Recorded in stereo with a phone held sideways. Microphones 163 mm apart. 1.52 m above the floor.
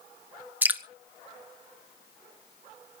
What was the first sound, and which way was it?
Dripping, 10° right (ahead or behind).